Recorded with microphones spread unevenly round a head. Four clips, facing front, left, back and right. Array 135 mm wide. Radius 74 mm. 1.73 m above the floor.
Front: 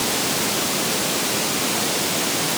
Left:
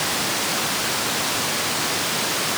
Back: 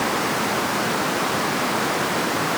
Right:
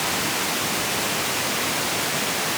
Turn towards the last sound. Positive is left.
No sound to turn to.